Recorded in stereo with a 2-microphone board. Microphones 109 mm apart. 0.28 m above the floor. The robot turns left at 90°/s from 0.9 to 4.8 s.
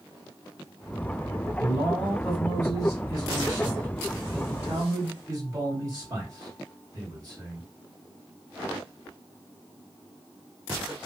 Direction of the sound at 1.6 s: 120° right.